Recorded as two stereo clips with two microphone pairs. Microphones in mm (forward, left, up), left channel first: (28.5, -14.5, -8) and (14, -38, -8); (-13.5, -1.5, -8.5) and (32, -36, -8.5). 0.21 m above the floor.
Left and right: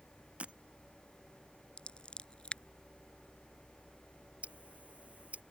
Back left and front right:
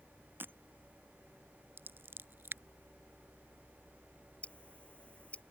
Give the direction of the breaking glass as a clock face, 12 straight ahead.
3 o'clock.